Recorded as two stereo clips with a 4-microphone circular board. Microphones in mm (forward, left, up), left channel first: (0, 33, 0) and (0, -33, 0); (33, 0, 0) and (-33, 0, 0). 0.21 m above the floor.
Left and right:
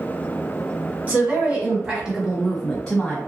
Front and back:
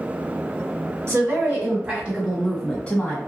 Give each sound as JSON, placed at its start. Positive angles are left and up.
{"t": 1.1, "sound": "a woman speaking", "azimuth_deg": -145, "distance_m": 1.8}